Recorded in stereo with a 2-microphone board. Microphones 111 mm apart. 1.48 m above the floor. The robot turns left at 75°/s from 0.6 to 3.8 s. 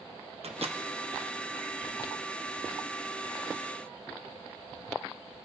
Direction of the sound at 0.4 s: 65° right (ahead or behind).